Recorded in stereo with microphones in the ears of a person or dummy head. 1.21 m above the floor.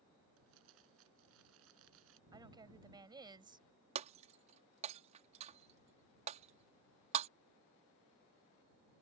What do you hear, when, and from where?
0.4 s crumpling: 75° right (ahead or behind)
2.3 s a woman speaking: 20° right (ahead or behind)
4.0 s breaking glass: 30° right (ahead or behind)